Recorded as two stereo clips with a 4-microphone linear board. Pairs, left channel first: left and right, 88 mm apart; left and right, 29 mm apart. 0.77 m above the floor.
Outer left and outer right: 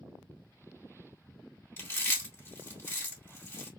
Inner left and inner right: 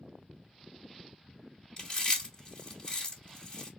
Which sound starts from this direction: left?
Chewing, at 1.8 s.